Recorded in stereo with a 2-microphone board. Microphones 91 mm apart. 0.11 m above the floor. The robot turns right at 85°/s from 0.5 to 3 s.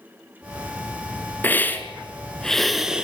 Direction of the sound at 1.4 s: 20° left (ahead or behind).